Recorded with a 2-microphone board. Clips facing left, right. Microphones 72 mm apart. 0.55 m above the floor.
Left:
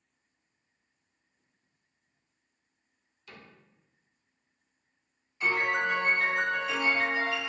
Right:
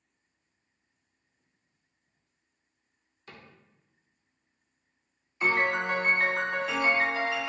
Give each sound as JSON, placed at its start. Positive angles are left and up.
{"t": 3.3, "sound": "a cupboard door", "side_deg": -40, "distance_m": 0.7}
{"t": 5.4, "sound": "a piano", "side_deg": -55, "distance_m": 0.6}